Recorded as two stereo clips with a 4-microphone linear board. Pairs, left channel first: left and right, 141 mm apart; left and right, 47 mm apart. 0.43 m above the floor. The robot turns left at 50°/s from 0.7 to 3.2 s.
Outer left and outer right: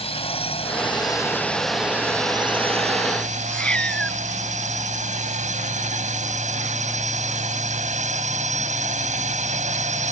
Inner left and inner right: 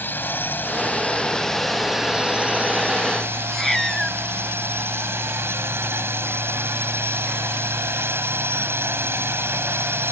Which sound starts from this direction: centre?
A cat meowing, at 3.5 s.